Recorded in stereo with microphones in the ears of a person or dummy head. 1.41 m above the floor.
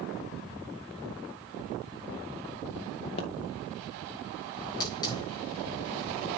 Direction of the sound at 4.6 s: 20° left (ahead or behind).